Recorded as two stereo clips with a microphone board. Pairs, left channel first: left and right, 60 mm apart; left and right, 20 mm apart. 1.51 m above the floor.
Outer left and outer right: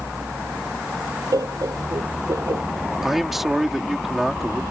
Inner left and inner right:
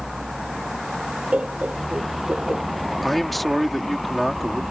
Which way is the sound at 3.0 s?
5° right (ahead or behind).